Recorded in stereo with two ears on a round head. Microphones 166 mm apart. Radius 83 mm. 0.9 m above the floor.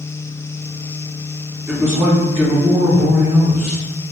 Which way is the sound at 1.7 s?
15° right (ahead or behind).